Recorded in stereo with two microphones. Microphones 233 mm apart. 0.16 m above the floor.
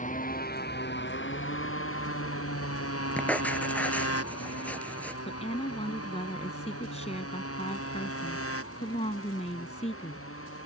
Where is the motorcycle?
35° left (ahead or behind); by 10.7 s 70° left (ahead or behind).